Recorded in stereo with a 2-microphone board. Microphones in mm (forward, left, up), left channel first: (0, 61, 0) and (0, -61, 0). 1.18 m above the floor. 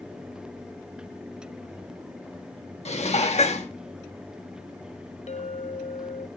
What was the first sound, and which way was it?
Dishes clattering, 60° left (ahead or behind).